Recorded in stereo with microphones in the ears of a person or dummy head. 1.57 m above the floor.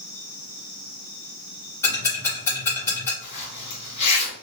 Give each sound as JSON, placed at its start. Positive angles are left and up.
{"t": 1.8, "sound": "ticking", "side_deg": 10, "distance_m": 2.5}
{"t": 3.2, "sound": "a zipper", "side_deg": 40, "distance_m": 2.5}